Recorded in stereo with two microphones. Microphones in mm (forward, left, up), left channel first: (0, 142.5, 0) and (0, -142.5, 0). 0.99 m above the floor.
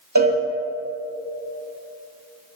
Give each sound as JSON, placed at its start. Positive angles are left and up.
{"t": 0.1, "sound": "a cowbell", "side_deg": -75, "distance_m": 1.7}